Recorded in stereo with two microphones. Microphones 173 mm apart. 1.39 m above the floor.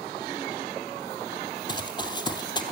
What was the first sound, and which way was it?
Running footsteps, 25° left (ahead or behind).